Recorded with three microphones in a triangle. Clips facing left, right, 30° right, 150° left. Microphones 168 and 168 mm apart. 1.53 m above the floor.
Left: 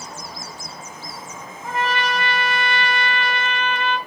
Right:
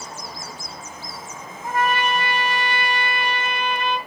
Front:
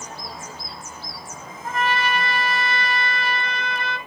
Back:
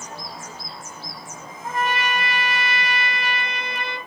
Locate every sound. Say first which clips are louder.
1.6 s a trumpet: right 2 dB, front 1 dB; 140° right, 1.8 m